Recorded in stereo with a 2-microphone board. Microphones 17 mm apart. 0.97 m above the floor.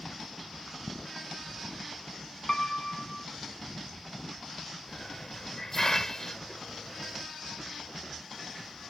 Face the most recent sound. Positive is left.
turn(degrees=25)  # may be behind; listen again after turning